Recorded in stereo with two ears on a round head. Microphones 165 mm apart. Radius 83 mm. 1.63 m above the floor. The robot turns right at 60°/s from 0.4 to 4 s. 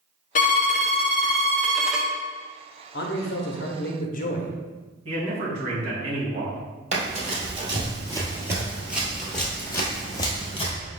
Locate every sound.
0.3 s a violin: 95° left, 0.6 m; by 2.1 s 165° right, 0.6 m
2.9 s a man speaking: 65° left, 0.7 m; by 4.5 s 130° left, 0.7 m
5.0 s a man speaking: 35° right (ahead or behind), 1.9 m
6.9 s running footsteps: 40° right (ahead or behind), 2 m; by 10.7 s 30° left (ahead or behind), 1.8 m